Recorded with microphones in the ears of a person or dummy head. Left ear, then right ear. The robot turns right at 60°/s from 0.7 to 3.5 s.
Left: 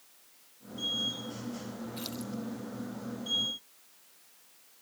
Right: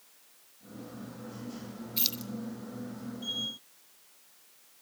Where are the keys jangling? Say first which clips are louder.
Right 10 dB; 35° right (ahead or behind), 1.0 m; by 2.3 s 15° right (ahead or behind), 1.0 m.